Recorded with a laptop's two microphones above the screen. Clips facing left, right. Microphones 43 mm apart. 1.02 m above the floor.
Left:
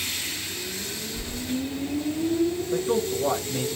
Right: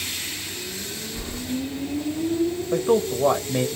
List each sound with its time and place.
1.1 s keys jangling: 55° right (ahead or behind), 1.0 m
2.7 s a man speaking: 50° right (ahead or behind), 0.5 m